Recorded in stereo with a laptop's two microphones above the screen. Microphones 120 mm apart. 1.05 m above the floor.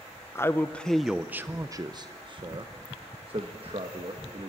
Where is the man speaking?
20° left (ahead or behind), 0.7 m; by 4.5 s 55° right (ahead or behind), 1.8 m.